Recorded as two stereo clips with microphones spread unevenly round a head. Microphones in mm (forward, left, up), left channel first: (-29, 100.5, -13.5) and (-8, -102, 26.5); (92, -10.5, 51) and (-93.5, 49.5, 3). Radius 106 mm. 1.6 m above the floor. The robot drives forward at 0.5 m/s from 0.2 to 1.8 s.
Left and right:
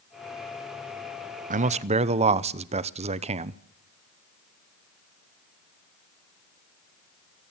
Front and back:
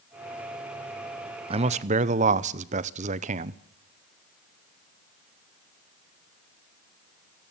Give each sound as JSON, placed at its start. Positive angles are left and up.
{"t": 1.5, "sound": "a man speaking", "azimuth_deg": -130, "distance_m": 0.7}